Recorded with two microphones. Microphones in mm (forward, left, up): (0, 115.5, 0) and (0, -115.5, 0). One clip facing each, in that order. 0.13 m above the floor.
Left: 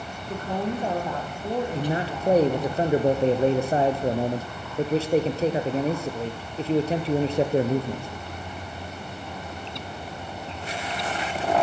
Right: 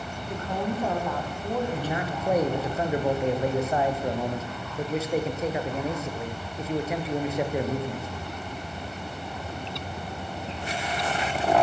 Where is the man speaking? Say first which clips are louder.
Left 3 dB; 30° left (ahead or behind), 2 m.